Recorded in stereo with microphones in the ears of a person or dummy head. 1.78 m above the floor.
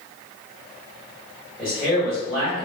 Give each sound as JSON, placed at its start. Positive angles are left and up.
{"t": 1.6, "sound": "a man speaking", "side_deg": -5, "distance_m": 1.3}